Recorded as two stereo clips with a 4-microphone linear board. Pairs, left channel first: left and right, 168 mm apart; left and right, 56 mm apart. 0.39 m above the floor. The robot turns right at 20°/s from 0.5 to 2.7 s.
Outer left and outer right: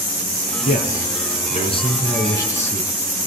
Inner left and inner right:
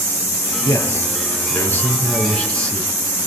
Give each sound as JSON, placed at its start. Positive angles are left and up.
{"t": 0.7, "sound": "a man speaking", "azimuth_deg": 125, "distance_m": 5.0}